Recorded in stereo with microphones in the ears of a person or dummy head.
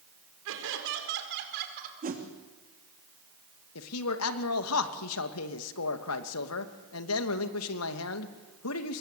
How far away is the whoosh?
About 3 m.